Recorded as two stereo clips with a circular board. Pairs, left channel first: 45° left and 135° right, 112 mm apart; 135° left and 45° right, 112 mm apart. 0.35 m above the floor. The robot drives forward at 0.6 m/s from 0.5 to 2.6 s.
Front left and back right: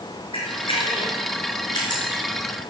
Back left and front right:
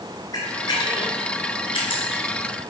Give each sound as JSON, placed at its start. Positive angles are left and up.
{"t": 0.3, "sound": "a camera shutter", "azimuth_deg": 80, "distance_m": 3.5}